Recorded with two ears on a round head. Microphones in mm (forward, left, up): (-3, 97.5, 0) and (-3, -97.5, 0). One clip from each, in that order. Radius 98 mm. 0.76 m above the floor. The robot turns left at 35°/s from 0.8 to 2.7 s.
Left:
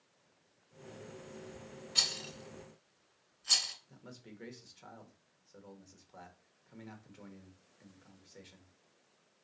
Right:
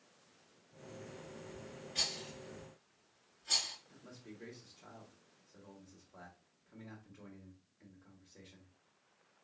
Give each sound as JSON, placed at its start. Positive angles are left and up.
{"t": 1.9, "sound": "a rattle", "side_deg": 55, "distance_m": 1.5}
{"t": 3.9, "sound": "a man speaking", "side_deg": 45, "distance_m": 1.2}